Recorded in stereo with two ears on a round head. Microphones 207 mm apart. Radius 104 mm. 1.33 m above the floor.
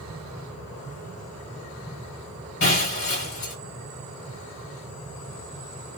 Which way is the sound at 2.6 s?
55° left (ahead or behind).